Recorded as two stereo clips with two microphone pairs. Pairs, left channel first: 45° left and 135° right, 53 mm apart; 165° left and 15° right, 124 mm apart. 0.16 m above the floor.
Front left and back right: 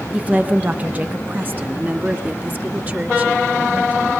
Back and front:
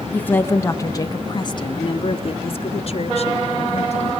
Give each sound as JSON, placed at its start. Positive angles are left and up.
{"t": 0.1, "sound": "a woman speaking", "azimuth_deg": -135, "distance_m": 1.5}